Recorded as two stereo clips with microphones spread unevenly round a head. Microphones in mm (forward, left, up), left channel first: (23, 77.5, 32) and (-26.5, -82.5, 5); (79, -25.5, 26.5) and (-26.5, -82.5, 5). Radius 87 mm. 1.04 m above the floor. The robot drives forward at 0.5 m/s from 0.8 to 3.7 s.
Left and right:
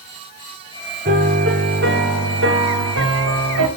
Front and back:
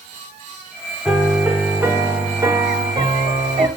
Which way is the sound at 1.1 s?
65° right.